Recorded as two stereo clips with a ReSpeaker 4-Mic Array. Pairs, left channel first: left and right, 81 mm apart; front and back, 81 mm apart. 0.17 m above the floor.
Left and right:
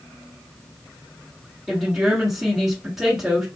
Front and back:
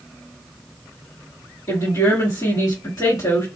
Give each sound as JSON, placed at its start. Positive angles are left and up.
{"t": 1.7, "sound": "a woman speaking", "azimuth_deg": -5, "distance_m": 2.0}